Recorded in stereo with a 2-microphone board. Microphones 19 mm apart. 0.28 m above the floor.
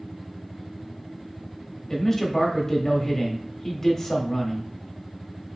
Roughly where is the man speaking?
Left.